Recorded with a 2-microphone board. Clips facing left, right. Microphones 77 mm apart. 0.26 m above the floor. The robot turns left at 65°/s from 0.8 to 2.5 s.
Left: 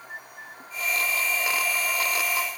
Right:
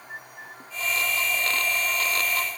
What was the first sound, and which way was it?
Only background noise.